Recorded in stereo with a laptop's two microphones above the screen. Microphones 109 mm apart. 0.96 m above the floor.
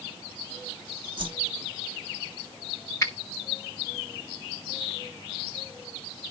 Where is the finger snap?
30° left (ahead or behind), 1.2 m.